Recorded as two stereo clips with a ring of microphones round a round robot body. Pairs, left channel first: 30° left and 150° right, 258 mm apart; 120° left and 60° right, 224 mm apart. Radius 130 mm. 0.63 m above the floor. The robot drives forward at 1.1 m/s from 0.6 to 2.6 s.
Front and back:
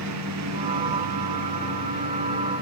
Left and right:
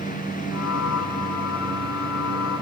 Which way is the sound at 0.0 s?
175° right.